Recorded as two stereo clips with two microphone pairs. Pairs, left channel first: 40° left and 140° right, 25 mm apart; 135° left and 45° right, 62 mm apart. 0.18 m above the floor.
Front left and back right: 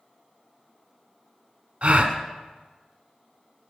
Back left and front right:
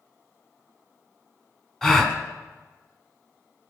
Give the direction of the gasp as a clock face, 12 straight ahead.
5 o'clock.